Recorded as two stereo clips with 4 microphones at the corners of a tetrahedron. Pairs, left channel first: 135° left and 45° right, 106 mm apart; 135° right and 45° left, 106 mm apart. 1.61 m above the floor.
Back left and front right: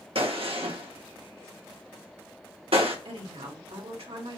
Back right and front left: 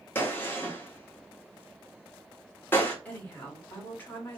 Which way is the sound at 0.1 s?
65° right.